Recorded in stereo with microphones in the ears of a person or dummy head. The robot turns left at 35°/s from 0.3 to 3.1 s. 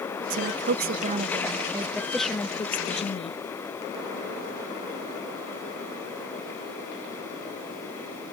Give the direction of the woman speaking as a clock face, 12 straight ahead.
4 o'clock.